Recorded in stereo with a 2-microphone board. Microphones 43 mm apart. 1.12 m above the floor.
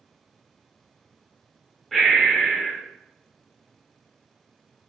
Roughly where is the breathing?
Centre.